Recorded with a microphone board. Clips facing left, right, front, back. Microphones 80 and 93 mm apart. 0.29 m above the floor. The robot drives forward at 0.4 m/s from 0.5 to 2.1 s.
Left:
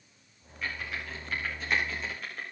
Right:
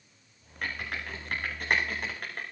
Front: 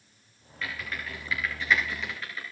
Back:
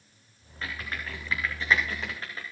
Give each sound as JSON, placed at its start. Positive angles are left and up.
{"t": 0.6, "sound": "typing on a keyboard", "azimuth_deg": -120, "distance_m": 8.0}